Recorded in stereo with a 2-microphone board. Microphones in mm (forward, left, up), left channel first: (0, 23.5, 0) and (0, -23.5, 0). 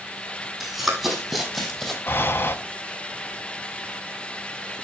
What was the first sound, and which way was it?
Running footsteps, 10° right (ahead or behind).